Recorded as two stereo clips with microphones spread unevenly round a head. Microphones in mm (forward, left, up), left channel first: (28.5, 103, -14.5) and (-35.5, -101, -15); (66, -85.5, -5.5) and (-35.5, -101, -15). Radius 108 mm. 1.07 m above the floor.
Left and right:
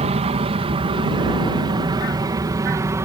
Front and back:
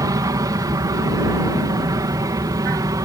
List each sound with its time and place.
0.0 s an aircraft: 150° right; by 3.0 s 175° right